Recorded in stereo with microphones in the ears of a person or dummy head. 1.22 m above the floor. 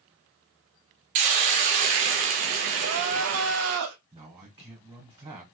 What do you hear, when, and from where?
1.1 s a hiss: 35° right (ahead or behind), 0.5 m
2.8 s crying: 80° right, 0.6 m
4.1 s a man speaking: 25° right (ahead or behind), 1.3 m